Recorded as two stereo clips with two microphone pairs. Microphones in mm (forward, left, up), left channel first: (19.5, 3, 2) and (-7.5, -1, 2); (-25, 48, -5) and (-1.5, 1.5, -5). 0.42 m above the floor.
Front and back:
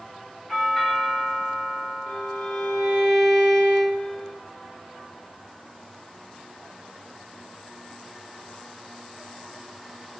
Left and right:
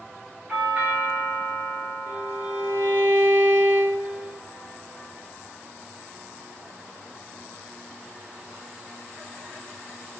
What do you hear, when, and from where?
0.5 s a doorbell: 80° right, 1.3 m
2.1 s a violin: 70° right, 0.8 m